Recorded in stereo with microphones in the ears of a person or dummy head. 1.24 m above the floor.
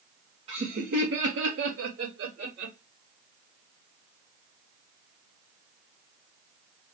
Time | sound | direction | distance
0.5 | laughter | 30° right (ahead or behind) | 0.6 m